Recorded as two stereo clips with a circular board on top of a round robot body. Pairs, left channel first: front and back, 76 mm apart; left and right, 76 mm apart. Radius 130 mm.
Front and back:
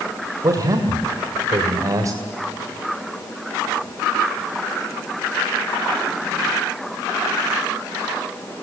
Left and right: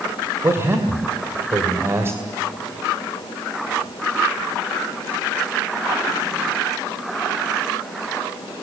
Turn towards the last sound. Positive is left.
turn(degrees=-145)